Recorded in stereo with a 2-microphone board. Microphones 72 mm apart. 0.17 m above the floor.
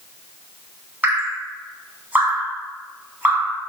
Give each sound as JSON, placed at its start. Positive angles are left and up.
{"t": 1.0, "sound": "dripping", "side_deg": -25, "distance_m": 0.9}